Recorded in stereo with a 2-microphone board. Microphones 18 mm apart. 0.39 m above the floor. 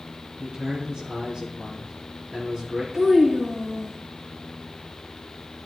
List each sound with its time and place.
0.4 s a man speaking: 35° right (ahead or behind), 4.5 m
2.9 s a child speaking: 30° right (ahead or behind), 4.5 m